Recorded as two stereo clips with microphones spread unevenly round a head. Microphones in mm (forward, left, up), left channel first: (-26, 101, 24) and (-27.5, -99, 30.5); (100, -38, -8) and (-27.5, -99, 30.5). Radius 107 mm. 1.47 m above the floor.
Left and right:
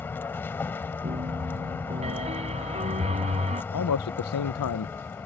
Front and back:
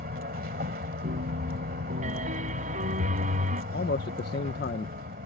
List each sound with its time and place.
0.0 s a vehicle: 170° left
1.0 s a piano: 145° right
3.7 s a man speaking: 75° left